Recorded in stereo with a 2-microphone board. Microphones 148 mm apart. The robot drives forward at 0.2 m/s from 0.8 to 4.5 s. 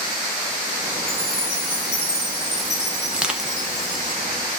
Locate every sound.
1.1 s a chime: 10° left (ahead or behind), 1.6 m; by 4.1 s 15° left (ahead or behind), 1.1 m
3.1 s crushing: 5° right (ahead or behind), 0.5 m